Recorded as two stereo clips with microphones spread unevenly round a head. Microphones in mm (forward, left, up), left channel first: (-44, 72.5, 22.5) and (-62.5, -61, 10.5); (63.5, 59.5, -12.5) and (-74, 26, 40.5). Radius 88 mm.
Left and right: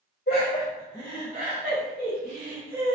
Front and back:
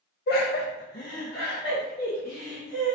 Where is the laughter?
40° left, 0.5 m; by 3.0 s 60° right, 2.5 m.